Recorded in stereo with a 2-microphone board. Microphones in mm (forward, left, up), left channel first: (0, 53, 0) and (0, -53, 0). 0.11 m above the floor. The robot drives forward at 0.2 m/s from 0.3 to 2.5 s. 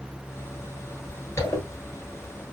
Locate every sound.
1.4 s a zipper: 25° left (ahead or behind), 1.3 m